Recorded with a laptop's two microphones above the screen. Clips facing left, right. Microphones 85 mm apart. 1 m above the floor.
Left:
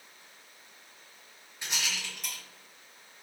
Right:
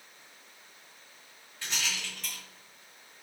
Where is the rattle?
20° left (ahead or behind), 1.2 m.